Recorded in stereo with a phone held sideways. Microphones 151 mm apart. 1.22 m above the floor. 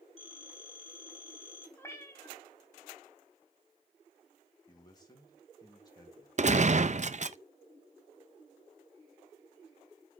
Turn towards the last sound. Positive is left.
turn(degrees=-50)  # may be behind; listen again after turning